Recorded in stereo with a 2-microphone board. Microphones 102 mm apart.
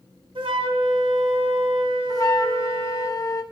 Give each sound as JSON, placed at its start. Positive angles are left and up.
{"t": 0.3, "sound": "a flute", "side_deg": -60, "distance_m": 1.0}
{"t": 2.1, "sound": "a flute", "side_deg": 40, "distance_m": 0.6}